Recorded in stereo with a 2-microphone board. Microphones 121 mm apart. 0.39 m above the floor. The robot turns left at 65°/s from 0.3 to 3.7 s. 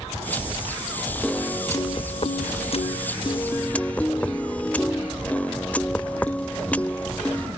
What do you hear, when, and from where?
1.2 s a piano: 175° left, 0.6 m; by 7.5 s 15° left, 0.6 m